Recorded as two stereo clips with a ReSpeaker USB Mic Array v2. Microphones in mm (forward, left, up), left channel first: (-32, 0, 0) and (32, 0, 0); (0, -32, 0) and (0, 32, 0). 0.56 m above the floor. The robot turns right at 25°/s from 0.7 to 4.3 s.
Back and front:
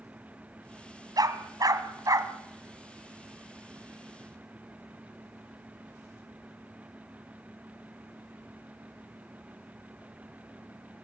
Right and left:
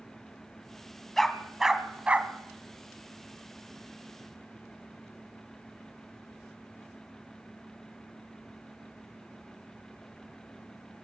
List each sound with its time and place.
1.2 s a dog barking: 5° right, 1.7 m; by 2.3 s 25° left, 1.7 m